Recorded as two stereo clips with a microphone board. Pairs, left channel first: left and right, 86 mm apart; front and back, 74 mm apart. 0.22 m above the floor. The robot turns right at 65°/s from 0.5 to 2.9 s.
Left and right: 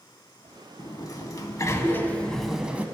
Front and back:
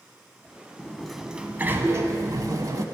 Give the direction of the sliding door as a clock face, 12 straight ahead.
10 o'clock.